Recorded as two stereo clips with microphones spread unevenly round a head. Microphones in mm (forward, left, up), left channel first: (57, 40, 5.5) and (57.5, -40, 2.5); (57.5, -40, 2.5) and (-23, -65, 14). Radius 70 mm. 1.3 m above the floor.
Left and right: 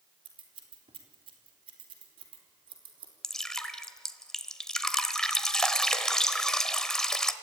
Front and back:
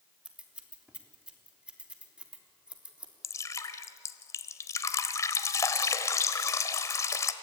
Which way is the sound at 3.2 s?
25° left.